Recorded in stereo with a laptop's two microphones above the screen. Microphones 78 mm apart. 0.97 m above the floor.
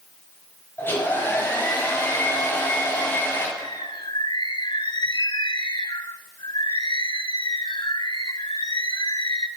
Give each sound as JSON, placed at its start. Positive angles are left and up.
{"t": 0.8, "sound": "a hair dryer", "side_deg": 25, "distance_m": 7.0}
{"t": 3.6, "sound": "a bird", "side_deg": 70, "distance_m": 0.8}